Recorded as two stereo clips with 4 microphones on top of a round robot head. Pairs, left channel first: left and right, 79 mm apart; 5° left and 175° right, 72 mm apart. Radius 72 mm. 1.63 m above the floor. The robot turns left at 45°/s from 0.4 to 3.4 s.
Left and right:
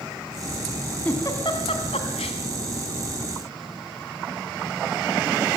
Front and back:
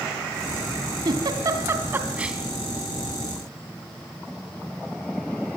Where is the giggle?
165° left, 2.5 m; by 2.4 s 105° left, 2.5 m.